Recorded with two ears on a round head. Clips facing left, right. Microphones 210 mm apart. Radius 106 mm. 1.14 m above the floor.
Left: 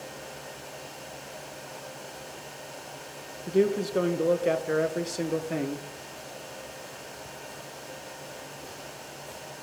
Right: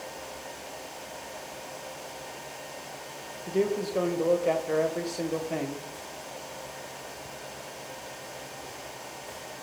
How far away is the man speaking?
About 0.7 m.